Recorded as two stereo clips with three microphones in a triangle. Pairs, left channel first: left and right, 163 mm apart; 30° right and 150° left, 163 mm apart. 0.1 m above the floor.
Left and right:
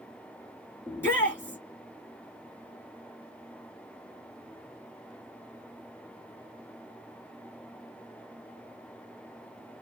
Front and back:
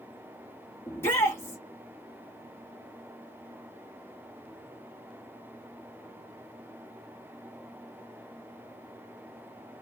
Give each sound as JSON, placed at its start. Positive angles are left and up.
{"t": 0.9, "sound": "a shout", "azimuth_deg": 30, "distance_m": 1.3}